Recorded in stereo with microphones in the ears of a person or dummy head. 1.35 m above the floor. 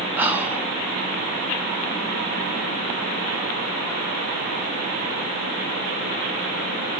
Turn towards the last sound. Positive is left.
turn(degrees=-10)  # may be behind; listen again after turning